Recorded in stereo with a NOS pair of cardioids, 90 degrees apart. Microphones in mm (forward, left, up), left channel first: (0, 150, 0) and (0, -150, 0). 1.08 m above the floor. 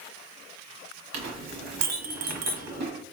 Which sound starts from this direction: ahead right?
A clink, at 1.1 s.